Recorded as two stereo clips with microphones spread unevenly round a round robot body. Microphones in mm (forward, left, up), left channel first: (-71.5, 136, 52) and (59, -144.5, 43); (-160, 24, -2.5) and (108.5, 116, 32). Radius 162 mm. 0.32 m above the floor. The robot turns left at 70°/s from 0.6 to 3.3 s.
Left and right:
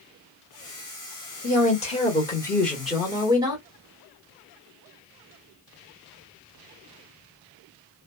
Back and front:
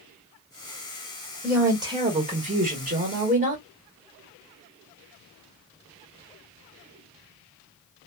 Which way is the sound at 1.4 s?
115° left.